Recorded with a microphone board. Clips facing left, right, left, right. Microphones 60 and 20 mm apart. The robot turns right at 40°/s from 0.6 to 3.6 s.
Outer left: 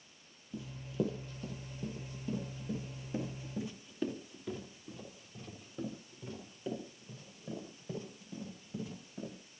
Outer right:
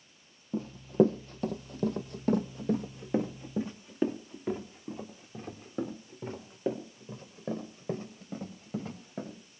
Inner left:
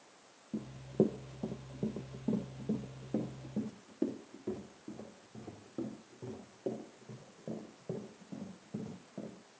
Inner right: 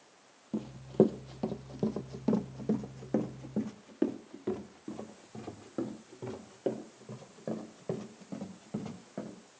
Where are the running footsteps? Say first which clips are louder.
Outer right 12 dB, inner right 5 dB; 50° right (ahead or behind), 0.9 m; by 9.3 s 55° right (ahead or behind), 5.5 m.